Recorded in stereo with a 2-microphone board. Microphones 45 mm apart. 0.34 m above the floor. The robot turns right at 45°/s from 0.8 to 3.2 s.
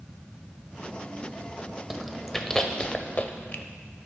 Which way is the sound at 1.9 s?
10° right (ahead or behind).